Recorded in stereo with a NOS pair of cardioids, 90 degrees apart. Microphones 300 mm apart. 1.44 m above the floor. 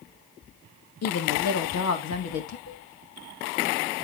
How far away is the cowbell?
About 6 m.